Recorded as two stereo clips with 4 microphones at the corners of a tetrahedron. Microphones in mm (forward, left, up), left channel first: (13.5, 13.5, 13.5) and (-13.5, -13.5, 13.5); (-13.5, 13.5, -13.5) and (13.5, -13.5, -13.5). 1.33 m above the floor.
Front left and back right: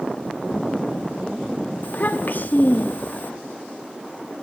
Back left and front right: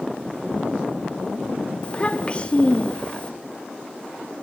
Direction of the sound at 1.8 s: 80° left.